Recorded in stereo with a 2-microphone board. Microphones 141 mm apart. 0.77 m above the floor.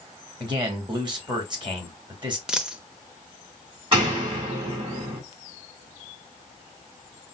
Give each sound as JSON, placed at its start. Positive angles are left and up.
{"t": 0.4, "sound": "a man speaking", "side_deg": -35, "distance_m": 1.7}
{"t": 2.5, "sound": "a dropped coin", "side_deg": -5, "distance_m": 0.6}
{"t": 3.9, "sound": "a door slam", "side_deg": -40, "distance_m": 2.5}